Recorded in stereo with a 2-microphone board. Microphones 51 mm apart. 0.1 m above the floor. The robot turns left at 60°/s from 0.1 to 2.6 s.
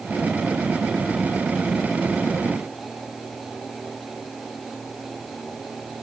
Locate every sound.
Only background noise.